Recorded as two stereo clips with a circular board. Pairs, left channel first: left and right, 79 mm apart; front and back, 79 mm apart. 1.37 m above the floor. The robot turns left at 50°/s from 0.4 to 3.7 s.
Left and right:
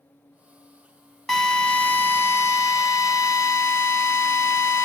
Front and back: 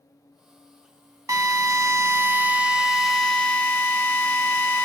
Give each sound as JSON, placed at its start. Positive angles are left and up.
{"t": 1.3, "sound": "a drill", "azimuth_deg": 175, "distance_m": 0.6}